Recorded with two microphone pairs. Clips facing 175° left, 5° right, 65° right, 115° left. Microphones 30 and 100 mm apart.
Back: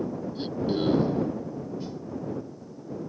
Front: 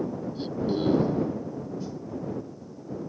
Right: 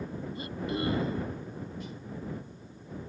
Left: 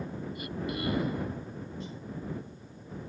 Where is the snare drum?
155° left.